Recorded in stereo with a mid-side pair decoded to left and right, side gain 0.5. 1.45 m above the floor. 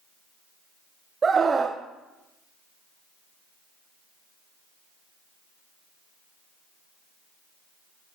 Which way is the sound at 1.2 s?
35° right.